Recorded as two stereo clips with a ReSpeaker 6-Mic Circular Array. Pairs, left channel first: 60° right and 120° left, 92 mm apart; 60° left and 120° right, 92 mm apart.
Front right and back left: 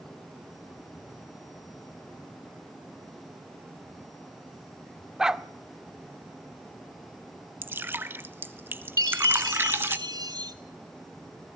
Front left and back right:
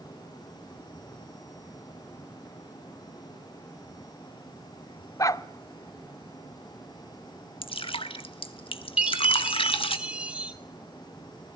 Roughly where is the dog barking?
Ahead left.